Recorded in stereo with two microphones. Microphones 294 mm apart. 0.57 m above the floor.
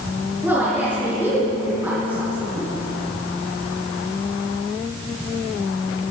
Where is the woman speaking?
5° right (ahead or behind), 7 m.